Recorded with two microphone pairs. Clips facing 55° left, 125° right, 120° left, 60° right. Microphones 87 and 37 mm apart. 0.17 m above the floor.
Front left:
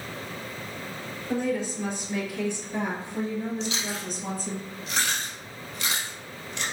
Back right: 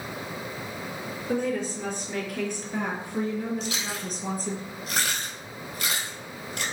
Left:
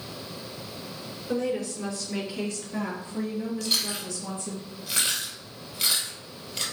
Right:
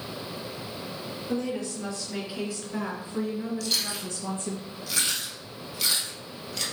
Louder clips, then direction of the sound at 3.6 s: Front left 1 dB, left 1 dB; 170° right.